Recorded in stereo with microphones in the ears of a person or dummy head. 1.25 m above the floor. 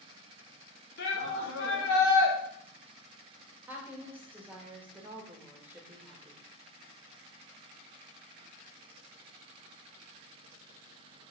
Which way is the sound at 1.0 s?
65° left (ahead or behind).